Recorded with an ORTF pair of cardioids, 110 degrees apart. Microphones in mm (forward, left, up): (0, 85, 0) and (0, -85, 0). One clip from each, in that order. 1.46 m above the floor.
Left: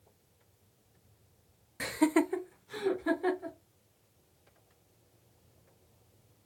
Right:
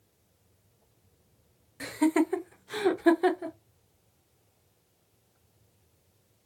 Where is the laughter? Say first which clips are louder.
Right 2 dB; 20° left, 0.6 m; by 3.5 s 70° right, 1.0 m.